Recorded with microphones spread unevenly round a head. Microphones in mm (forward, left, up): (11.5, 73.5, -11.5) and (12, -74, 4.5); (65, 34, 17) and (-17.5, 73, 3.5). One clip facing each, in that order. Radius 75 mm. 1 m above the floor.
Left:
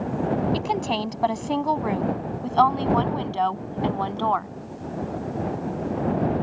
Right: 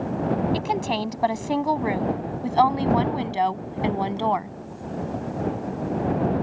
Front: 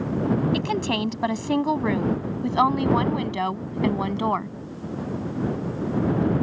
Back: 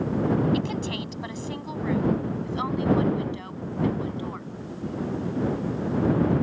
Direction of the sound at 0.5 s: 5° right.